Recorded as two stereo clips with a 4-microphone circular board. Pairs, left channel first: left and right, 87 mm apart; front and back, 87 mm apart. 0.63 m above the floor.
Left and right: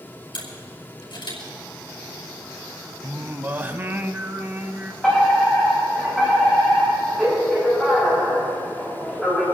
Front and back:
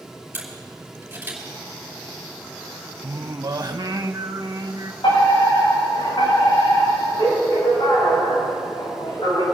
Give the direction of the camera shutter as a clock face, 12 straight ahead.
8 o'clock.